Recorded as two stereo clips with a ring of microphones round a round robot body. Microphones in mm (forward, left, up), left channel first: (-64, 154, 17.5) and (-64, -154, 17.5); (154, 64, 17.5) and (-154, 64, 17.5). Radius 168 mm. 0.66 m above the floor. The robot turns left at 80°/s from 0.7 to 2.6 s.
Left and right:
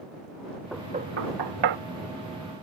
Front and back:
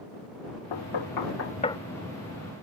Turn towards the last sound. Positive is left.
turn(degrees=-150)